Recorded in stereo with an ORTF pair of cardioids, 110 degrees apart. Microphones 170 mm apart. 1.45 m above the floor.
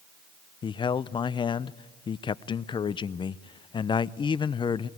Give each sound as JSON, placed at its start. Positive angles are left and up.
{"t": 0.6, "sound": "a man speaking", "azimuth_deg": 30, "distance_m": 0.6}